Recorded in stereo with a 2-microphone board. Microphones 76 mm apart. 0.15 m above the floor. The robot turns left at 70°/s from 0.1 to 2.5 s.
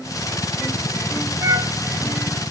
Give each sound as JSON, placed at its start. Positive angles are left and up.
{"t": 1.4, "sound": "a flute", "side_deg": -45, "distance_m": 0.6}